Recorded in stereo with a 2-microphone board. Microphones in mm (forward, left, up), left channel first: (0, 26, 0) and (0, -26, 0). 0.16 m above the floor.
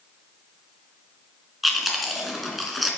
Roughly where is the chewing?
Centre.